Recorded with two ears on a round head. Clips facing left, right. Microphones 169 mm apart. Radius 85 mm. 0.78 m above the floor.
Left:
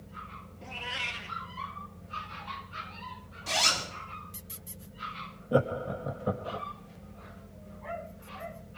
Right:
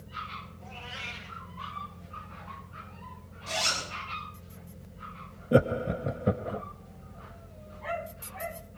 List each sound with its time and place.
0.6 s a cat meowing: 70° left (ahead or behind), 2.0 m
3.5 s a zipper: 70° left (ahead or behind), 5 m
5.5 s laughter: 25° right (ahead or behind), 0.6 m